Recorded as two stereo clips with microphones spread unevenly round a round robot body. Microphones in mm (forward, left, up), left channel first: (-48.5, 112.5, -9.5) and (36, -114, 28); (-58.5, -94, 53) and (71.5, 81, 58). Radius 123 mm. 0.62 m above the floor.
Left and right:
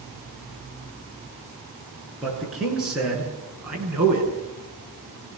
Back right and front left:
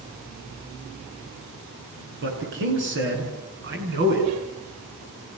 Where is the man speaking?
20° left, 10 m; by 4.3 s 15° left, 8 m.